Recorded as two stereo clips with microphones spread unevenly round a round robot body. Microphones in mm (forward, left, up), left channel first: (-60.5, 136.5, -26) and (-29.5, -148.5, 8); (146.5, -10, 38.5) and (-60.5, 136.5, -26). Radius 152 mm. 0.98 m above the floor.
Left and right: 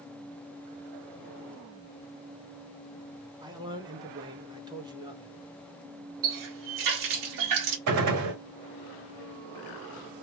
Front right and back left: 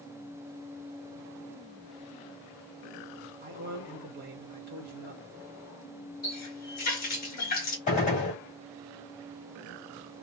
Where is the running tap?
100° right, 1.4 m.